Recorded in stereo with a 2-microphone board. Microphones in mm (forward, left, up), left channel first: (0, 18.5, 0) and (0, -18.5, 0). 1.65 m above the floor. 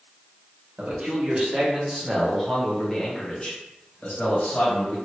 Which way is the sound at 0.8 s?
35° right (ahead or behind).